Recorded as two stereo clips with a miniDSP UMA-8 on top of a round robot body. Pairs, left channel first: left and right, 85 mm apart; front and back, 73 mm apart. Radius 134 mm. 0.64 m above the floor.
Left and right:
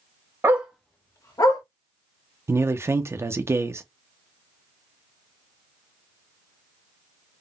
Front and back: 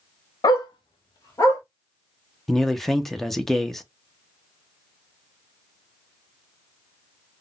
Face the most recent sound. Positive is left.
turn(degrees=-85)